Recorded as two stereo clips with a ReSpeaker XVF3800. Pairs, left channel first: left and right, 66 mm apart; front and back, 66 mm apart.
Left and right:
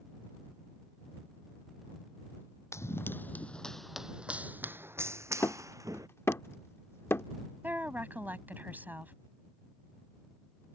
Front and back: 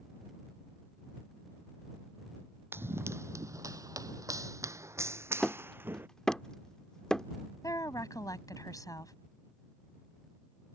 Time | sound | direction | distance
2.7 | running footsteps | 130° left | ?
5.4 | hammering | 75° left | ?
7.6 | a woman speaking | 25° right | ?